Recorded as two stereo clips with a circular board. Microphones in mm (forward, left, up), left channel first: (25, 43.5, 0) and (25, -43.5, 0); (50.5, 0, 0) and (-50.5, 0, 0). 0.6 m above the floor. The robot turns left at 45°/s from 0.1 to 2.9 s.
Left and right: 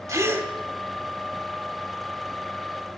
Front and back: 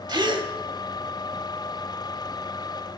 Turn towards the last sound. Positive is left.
turn(degrees=95)